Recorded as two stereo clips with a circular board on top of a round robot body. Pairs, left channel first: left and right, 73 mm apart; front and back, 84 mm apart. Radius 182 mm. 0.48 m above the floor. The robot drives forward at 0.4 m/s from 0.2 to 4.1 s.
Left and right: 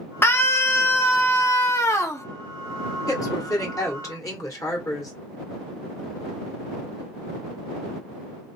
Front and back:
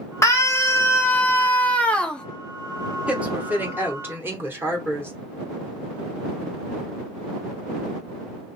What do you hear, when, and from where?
0.2 s a scream: 45° left, 1.8 m; by 2.2 s 75° left, 1.5 m
3.1 s a woman speaking: 105° left, 1.8 m; by 5.1 s 120° left, 2.0 m